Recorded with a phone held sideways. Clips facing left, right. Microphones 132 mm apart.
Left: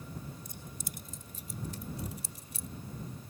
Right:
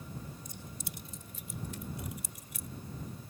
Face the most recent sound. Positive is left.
turn(degrees=30)  # may be behind; listen again after turning